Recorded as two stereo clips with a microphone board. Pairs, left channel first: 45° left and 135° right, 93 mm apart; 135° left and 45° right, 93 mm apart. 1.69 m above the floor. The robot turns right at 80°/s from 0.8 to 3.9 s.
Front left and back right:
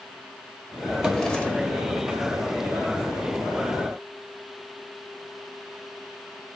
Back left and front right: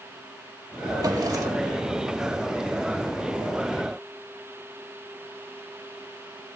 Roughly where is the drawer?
Ahead right.